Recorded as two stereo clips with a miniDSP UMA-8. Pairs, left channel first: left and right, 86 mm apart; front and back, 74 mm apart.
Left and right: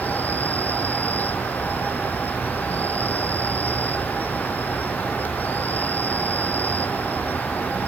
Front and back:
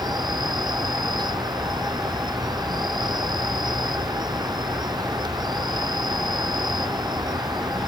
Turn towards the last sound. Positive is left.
turn(degrees=160)